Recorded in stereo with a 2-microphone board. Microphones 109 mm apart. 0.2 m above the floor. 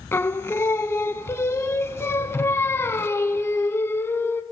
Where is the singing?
25° left (ahead or behind), 0.5 m.